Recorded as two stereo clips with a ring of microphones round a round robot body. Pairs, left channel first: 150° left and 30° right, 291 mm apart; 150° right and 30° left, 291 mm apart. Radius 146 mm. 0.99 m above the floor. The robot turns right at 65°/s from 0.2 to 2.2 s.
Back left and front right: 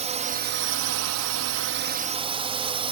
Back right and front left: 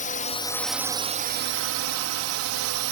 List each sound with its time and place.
0.0 s a drone: 95° right; by 2.9 s 35° left